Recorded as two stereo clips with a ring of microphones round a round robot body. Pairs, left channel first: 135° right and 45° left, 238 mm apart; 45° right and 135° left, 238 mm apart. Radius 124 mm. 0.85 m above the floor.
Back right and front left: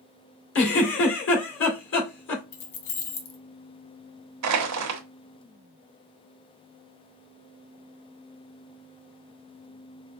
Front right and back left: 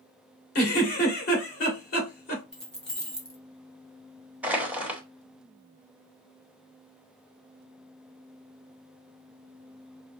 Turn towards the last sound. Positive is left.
turn(degrees=50)